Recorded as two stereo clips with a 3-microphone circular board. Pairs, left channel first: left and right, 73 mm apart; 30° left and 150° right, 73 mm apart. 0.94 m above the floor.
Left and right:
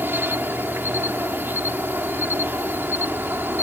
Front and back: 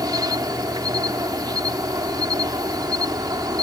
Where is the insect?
150° right.